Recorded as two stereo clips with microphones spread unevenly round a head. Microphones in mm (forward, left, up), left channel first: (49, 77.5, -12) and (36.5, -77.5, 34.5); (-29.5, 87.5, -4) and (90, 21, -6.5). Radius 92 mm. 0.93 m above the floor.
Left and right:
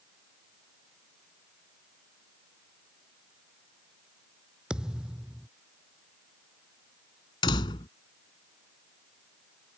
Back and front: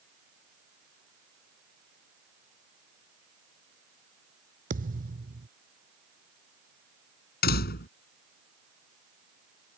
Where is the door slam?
155° left.